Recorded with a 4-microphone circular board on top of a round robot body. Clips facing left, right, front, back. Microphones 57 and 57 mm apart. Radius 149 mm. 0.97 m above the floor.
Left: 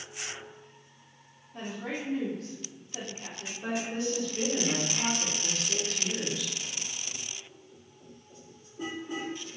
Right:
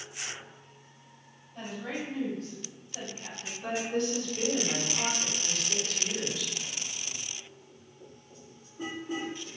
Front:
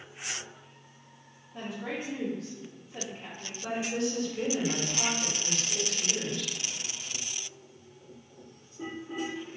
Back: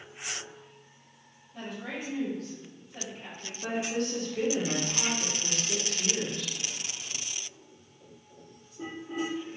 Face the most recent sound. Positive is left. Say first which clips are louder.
# right 1 dB, even
turn(degrees=160)